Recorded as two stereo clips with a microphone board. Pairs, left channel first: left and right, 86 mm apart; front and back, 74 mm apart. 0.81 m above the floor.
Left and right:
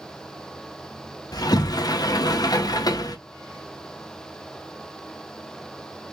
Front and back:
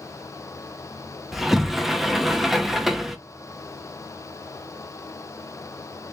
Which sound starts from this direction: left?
A sliding door, at 1.3 s.